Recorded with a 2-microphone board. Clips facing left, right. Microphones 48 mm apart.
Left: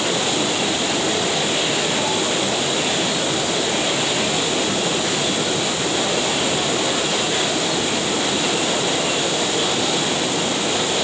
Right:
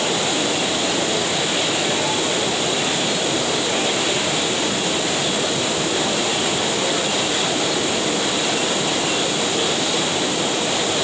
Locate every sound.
Only background noise.